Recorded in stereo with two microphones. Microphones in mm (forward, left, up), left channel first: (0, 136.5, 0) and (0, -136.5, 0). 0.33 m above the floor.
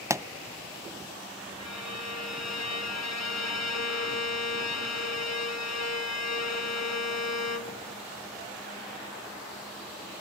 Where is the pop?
10° right (ahead or behind), 0.5 m.